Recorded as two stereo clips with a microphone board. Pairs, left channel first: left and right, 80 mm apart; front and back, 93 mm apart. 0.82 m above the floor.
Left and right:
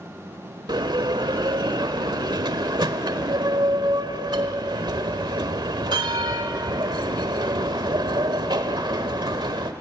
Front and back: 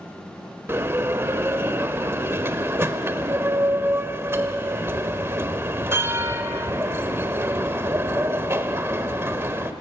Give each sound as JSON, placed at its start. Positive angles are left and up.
{"t": 0.7, "sound": "a bell", "azimuth_deg": -115, "distance_m": 1.2}